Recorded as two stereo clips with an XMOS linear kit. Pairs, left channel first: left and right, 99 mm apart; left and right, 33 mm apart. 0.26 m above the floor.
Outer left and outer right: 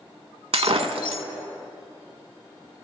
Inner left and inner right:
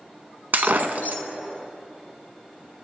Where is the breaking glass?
80° right, 0.5 m.